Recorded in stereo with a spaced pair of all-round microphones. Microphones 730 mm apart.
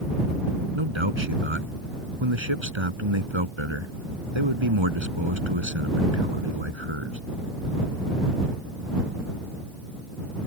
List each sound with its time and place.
0.8 s a man speaking: 40° right (ahead or behind)